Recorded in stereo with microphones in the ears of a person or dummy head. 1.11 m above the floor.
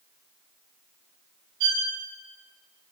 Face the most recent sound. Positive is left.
turn(degrees=-55)  # may be behind; listen again after turning